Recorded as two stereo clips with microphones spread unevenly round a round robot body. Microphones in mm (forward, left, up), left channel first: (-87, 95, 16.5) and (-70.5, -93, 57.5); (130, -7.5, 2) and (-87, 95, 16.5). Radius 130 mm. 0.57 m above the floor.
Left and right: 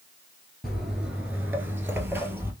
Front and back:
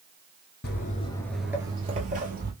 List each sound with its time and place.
0.6 s footsteps: 10° right, 0.6 m; by 2.5 s 155° right, 1.1 m